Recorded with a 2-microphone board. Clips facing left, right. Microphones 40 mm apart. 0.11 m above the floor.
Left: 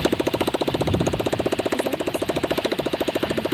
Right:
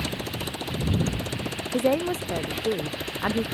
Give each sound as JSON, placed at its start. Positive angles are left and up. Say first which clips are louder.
{"t": 0.0, "sound": "a motorcycle", "louder": "left 10 dB", "side_deg": 50}
{"t": 1.7, "sound": "a woman speaking", "louder": "even", "side_deg": -55}